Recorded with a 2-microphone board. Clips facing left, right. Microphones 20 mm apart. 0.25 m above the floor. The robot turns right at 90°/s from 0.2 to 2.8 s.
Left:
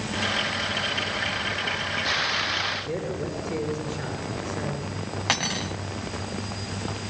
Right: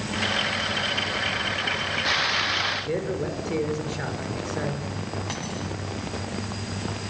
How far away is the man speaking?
About 4.5 m.